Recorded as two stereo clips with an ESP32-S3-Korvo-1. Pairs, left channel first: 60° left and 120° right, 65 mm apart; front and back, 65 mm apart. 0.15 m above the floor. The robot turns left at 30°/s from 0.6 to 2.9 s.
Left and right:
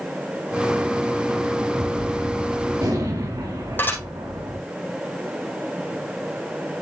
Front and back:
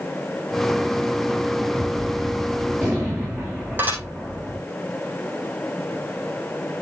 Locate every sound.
1.7 s a gunshot: 75° right, 7 m; by 4.6 s 110° right, 7 m
3.8 s dishes clattering: 120° left, 4.5 m